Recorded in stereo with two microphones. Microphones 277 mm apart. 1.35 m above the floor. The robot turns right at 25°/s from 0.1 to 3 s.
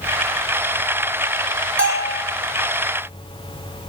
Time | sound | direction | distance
1.8 | a bell | 45° right (ahead or behind) | 3 m